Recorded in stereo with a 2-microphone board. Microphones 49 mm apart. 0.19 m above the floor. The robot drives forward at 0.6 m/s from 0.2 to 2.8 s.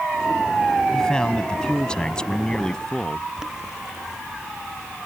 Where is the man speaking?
15° left (ahead or behind).